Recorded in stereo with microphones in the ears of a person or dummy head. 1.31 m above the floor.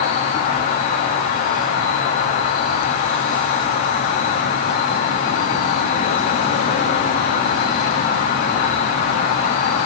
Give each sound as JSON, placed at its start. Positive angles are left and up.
{"t": 0.0, "sound": "an insect", "side_deg": 35, "distance_m": 0.9}